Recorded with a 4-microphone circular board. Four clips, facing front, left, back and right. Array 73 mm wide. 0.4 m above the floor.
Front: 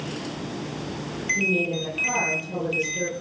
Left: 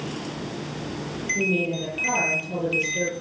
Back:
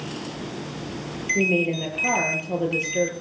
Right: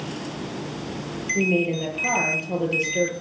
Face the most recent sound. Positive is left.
turn(degrees=-165)